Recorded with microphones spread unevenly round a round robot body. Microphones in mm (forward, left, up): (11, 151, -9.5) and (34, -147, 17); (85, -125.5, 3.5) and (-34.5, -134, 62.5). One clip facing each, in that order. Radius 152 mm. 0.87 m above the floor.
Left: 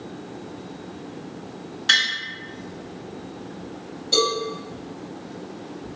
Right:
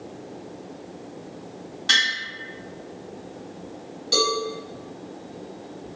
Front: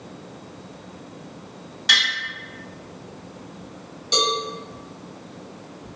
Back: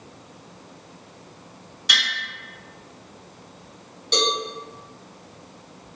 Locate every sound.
1.9 s tapping: 15° left, 1.5 m
4.1 s a cowbell: 35° right, 1.3 m